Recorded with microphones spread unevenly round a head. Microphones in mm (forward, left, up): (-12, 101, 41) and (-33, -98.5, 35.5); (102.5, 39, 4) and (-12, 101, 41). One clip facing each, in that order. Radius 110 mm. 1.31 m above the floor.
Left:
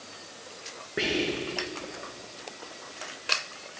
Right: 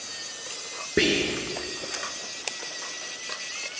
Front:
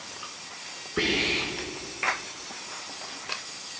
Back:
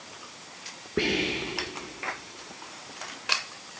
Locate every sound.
1.0 s whispering: 135° right, 1.2 m